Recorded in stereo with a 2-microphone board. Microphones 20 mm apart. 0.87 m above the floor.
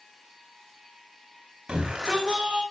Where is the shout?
35° right (ahead or behind), 5 m.